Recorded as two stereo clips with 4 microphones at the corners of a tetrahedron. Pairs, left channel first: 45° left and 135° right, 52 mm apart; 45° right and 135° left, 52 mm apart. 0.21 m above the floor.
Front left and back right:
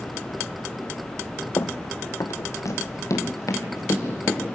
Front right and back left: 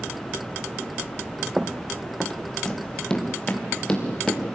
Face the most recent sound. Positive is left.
turn(degrees=25)